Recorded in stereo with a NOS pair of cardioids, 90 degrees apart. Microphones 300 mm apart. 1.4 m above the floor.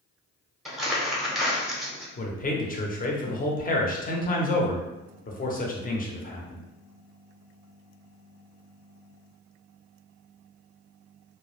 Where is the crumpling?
Straight ahead, 0.8 m.